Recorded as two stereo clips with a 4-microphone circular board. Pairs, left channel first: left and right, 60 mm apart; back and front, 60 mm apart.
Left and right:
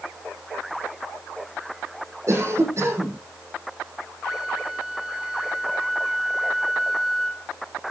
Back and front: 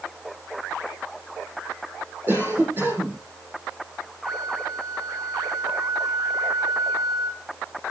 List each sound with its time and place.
2.3 s a cough: 50° right, 7.5 m
4.2 s a flute: straight ahead, 1.7 m